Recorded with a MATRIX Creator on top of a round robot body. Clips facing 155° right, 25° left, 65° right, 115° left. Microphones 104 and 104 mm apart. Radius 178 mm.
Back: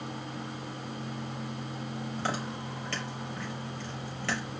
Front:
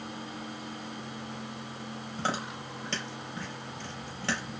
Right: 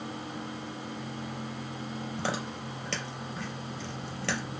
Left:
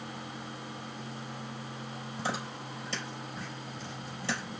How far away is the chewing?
About 4.5 m.